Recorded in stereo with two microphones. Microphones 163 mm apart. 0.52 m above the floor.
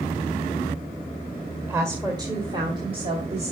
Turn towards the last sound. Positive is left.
turn(degrees=-40)  # may be behind; listen again after turning